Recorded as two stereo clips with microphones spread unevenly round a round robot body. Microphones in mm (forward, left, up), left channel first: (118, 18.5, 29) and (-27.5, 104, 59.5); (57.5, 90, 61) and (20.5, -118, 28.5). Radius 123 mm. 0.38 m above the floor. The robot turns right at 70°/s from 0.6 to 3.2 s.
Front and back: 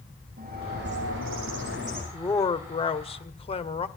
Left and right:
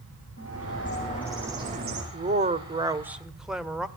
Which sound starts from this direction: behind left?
A bird, at 0.4 s.